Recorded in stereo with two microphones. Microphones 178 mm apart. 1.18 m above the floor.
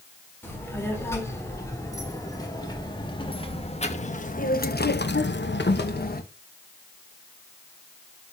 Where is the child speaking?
10° left (ahead or behind), 3.5 m; by 6.2 s 60° left (ahead or behind), 1.1 m.